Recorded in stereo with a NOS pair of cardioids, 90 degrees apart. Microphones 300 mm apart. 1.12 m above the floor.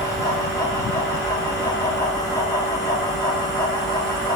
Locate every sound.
0.0 s a fan: 10° left, 0.9 m